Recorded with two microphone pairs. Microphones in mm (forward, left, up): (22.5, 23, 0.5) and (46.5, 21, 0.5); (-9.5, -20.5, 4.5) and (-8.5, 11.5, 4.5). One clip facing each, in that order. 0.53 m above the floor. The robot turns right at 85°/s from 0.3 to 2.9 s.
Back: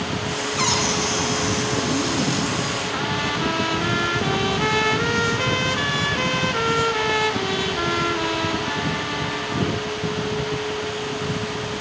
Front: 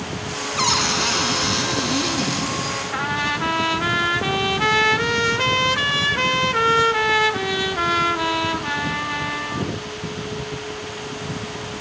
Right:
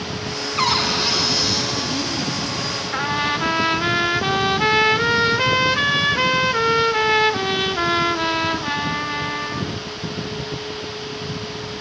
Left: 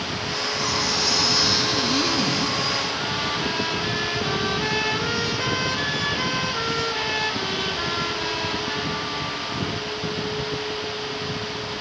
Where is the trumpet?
60° right, 1.4 m.